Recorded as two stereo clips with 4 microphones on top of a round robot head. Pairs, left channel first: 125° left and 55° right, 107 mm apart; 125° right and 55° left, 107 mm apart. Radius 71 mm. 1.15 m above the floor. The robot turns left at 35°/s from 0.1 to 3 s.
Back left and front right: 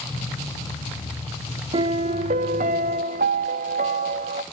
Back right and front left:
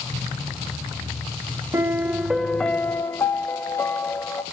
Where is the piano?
10° right, 0.7 m; by 4.4 s 55° right, 0.7 m.